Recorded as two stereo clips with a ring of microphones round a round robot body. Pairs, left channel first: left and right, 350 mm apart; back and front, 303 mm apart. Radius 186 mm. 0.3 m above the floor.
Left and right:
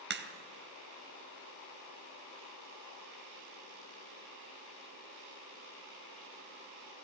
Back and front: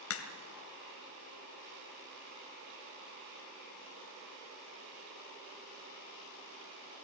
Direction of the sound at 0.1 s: 145° right.